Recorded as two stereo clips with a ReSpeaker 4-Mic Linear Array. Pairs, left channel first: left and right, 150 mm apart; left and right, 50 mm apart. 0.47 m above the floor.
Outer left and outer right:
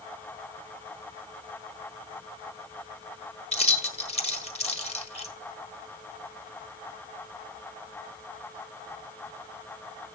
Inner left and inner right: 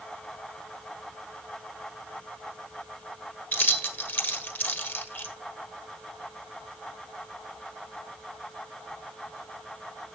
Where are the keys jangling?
40° left (ahead or behind), 1.2 m.